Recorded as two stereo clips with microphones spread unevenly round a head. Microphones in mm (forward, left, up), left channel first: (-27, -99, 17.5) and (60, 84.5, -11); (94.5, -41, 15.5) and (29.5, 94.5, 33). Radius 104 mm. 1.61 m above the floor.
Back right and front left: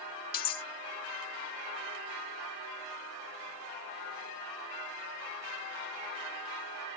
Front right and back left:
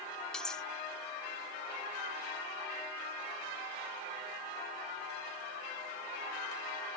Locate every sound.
0.3 s cutlery clinking: 155° right